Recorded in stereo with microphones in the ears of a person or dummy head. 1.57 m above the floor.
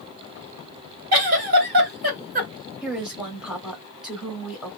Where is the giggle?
55° right (ahead or behind), 1.3 m.